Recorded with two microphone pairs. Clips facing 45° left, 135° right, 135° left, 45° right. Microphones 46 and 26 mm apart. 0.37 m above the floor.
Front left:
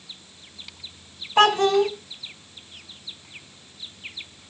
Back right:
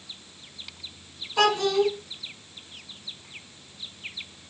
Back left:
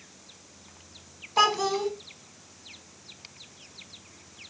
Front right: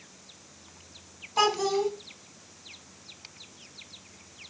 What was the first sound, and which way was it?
A child speaking, 75° left.